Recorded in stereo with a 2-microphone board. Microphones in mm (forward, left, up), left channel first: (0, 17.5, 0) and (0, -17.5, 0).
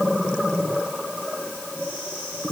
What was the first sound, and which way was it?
Only background noise.